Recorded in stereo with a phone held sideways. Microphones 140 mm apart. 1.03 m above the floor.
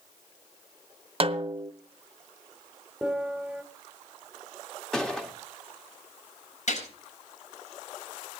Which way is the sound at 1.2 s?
40° right (ahead or behind).